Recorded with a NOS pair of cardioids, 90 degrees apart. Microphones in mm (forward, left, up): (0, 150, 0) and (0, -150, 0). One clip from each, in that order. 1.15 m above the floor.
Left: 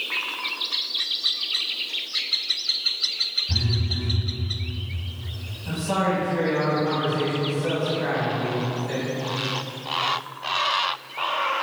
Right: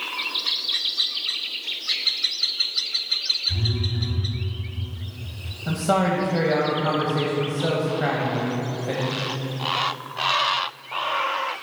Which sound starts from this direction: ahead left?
A phone buzzing, at 3.5 s.